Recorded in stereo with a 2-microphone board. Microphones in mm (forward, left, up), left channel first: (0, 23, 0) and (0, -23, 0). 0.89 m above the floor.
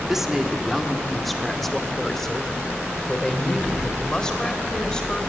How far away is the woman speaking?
About 1.9 m.